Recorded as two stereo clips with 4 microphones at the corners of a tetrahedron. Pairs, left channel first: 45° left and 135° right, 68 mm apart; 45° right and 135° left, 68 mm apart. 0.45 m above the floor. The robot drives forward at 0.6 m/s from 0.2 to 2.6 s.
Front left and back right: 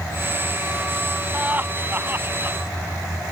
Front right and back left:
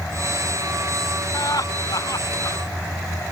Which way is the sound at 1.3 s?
70° right.